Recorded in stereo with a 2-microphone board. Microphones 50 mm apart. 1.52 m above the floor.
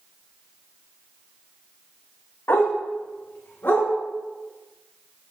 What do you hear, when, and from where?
2.5 s a dog barking: 55° left (ahead or behind), 1.9 m; by 3.9 s 45° left (ahead or behind), 2.5 m